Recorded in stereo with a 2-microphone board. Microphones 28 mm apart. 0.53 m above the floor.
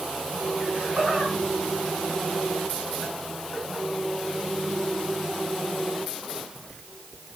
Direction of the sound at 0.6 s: 30° right (ahead or behind).